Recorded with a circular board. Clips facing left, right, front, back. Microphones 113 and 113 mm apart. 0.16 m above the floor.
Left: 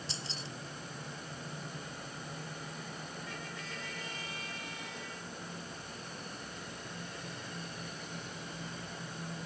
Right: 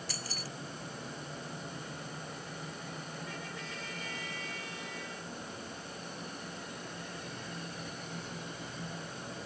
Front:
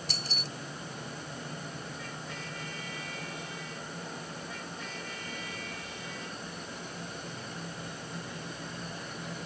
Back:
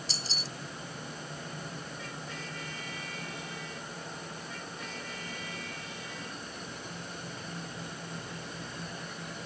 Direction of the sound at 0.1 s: 25° left.